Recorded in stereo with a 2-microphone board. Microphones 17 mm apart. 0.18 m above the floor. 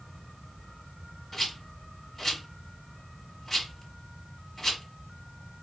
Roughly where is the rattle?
Centre.